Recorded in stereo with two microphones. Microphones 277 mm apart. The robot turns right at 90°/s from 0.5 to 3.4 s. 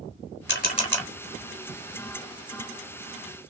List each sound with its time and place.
0.5 s a camera shutter: 45° left (ahead or behind), 0.9 m; by 1.1 s 5° right (ahead or behind), 0.9 m